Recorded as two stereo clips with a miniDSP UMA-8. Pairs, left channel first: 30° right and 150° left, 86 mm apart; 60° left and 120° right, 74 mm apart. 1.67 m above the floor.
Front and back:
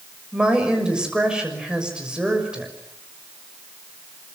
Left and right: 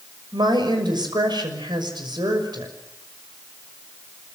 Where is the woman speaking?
130° right, 6 m.